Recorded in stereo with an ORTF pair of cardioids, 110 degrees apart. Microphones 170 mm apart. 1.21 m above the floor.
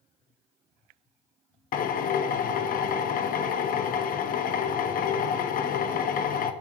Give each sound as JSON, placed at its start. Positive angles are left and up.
{"t": 1.7, "sound": "a drill", "azimuth_deg": 60, "distance_m": 1.1}